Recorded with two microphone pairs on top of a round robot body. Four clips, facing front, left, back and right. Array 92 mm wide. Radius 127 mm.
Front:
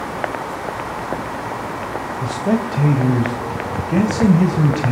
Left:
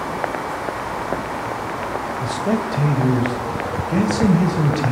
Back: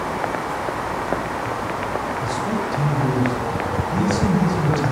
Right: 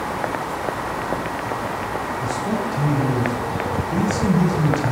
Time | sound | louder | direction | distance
2.2 | a man speaking | left 4 dB, front 3 dB | 30° left | 3 m